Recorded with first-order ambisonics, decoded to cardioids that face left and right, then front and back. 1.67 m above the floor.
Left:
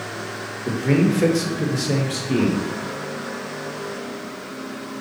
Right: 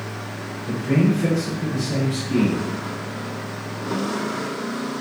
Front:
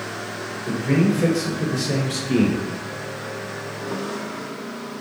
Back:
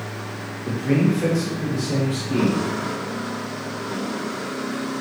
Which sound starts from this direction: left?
A man speaking, at 0.7 s.